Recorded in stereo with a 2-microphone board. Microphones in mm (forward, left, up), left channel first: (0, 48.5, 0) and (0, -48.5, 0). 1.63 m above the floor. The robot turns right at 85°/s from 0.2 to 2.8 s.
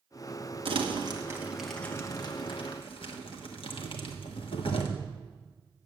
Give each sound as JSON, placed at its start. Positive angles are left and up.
{"t": 0.7, "sound": "crumpling", "side_deg": -65, "distance_m": 1.3}